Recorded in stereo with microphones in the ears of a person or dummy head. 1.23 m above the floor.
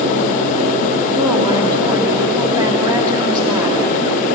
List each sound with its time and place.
1.1 s a woman speaking: 20° right (ahead or behind), 2.5 m